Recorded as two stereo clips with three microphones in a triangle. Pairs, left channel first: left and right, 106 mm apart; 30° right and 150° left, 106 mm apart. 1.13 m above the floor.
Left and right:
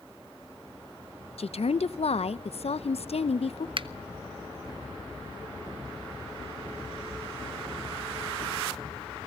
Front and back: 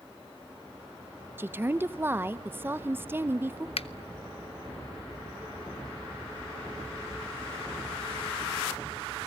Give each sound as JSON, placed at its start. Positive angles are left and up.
{"t": 1.4, "sound": "a woman speaking", "azimuth_deg": 80, "distance_m": 0.8}
{"t": 3.8, "sound": "a finger snap", "azimuth_deg": -55, "distance_m": 0.7}